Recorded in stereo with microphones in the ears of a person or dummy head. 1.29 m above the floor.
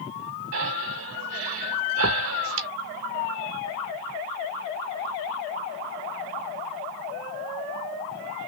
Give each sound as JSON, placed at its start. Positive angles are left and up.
{"t": 0.5, "sound": "breathing", "side_deg": -65, "distance_m": 0.9}